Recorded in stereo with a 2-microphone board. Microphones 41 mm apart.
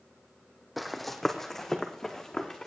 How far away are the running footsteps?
About 1.0 m.